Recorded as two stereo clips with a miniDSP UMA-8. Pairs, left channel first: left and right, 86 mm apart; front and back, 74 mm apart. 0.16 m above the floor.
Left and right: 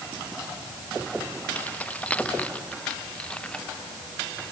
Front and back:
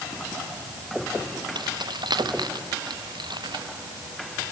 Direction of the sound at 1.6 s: 165° left.